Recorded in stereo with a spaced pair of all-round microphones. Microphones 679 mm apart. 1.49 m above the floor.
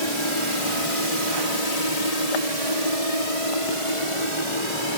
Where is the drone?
45° left (ahead or behind); by 5.0 s 40° left (ahead or behind).